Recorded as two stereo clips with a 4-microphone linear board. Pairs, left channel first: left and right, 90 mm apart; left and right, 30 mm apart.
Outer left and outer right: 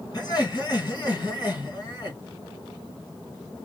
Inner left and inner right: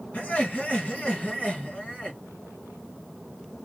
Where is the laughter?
50° left (ahead or behind), 3 m.